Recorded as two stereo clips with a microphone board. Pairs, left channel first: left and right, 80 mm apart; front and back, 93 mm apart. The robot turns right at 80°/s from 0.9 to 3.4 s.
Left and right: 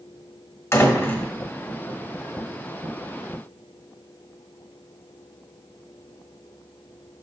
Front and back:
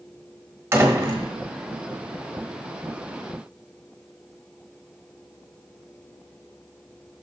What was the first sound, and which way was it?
A door slam, 125° left.